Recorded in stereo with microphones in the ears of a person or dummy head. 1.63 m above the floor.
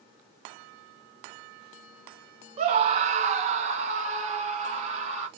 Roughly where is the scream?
Right.